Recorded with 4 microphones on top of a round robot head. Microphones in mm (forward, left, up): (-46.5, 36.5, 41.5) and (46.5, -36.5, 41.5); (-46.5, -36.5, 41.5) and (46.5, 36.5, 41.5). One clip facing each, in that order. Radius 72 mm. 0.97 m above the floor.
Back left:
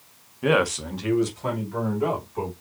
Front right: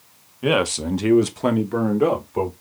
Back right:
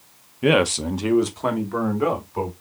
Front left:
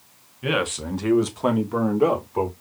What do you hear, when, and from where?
0.4 s a man speaking: 125° right, 0.8 m; by 2.5 s 25° right, 2 m